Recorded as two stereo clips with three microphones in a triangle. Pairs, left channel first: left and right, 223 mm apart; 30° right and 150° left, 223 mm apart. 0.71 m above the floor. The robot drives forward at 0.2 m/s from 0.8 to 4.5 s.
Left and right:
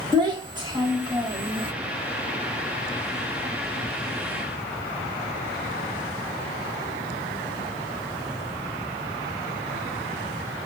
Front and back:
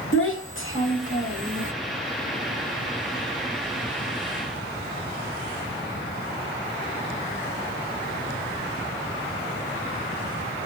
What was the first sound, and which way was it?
A child speaking, 20° right.